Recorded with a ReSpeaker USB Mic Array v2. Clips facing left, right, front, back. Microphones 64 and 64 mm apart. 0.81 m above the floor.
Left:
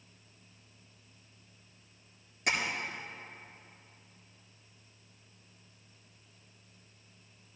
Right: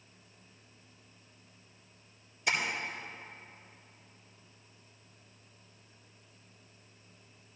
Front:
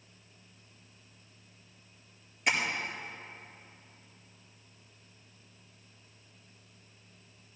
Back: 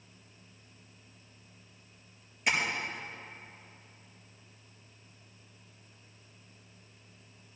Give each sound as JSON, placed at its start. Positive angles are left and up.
{"t": 2.5, "sound": "tapping", "azimuth_deg": 95, "distance_m": 4.5}